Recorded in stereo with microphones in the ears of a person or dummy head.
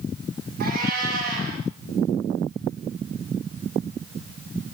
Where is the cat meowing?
60° right (ahead or behind), 7.5 m.